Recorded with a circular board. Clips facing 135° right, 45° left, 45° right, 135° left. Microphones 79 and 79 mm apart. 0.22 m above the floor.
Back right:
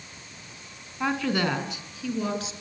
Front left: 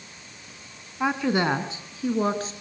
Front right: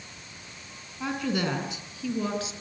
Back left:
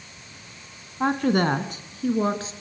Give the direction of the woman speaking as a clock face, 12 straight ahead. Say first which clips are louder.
Front left 2 dB, back left 7 dB; 8 o'clock.